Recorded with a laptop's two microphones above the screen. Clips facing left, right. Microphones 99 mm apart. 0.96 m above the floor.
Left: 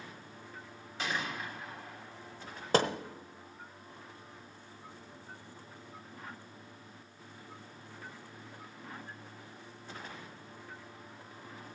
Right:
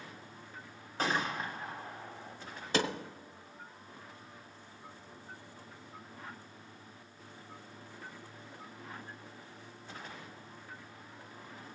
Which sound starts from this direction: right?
A gunshot, at 1.0 s.